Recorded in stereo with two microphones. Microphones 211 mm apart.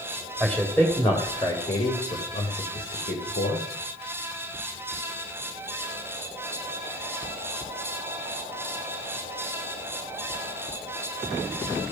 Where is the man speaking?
Centre (ahead or behind), 2.5 m; by 3.6 s 60° left (ahead or behind), 3 m.